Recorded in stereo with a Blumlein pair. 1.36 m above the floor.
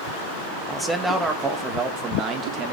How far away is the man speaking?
About 2 m.